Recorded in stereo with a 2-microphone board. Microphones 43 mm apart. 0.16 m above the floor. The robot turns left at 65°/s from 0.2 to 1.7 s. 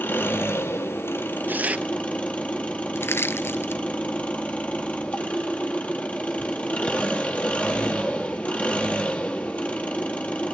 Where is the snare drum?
No snare drum in this recording.